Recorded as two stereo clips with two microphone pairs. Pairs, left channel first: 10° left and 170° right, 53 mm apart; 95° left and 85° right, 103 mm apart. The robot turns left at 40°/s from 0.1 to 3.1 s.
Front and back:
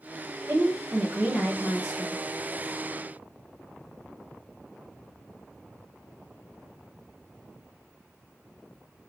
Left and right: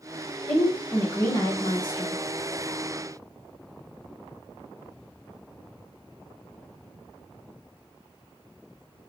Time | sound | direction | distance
0.5 | a woman speaking | 165° left | 1.1 m